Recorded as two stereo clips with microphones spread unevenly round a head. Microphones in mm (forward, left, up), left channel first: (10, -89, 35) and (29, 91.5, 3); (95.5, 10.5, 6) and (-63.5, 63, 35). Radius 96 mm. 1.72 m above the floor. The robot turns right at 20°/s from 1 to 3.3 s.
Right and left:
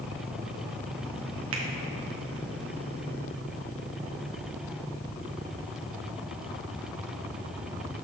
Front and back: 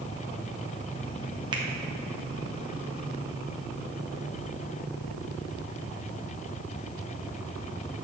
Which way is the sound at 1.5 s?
110° left.